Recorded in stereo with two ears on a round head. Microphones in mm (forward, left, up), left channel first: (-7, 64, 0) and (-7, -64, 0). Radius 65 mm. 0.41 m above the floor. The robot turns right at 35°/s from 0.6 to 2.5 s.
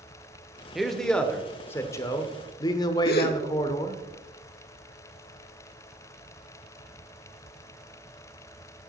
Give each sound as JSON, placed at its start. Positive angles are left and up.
{"t": 0.8, "sound": "a man speaking", "azimuth_deg": 0, "distance_m": 1.0}
{"t": 3.0, "sound": "a gasp", "side_deg": 70, "distance_m": 0.9}